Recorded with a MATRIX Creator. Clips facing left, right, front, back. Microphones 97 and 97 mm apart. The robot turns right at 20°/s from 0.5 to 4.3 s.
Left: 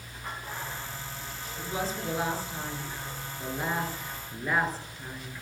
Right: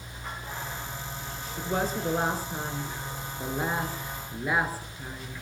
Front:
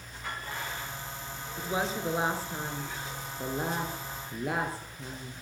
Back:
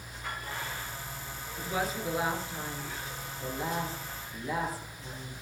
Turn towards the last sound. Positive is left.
turn(degrees=-10)